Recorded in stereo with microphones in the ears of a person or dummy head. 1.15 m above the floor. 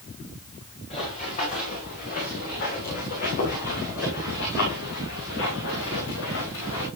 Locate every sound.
0.9 s running footsteps: 35° left (ahead or behind), 8.5 m; by 6.9 s 70° left (ahead or behind), 7 m